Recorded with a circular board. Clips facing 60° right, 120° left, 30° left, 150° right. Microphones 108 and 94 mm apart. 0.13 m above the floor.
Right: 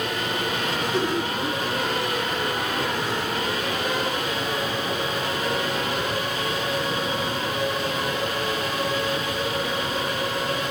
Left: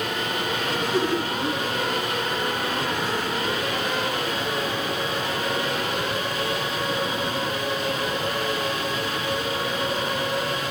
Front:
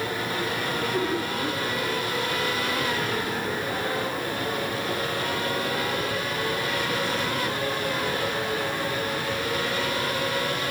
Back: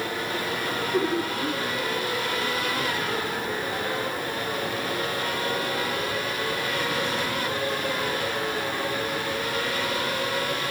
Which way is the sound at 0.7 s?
175° left.